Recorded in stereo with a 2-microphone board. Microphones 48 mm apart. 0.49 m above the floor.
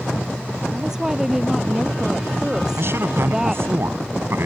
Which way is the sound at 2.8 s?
60° right (ahead or behind).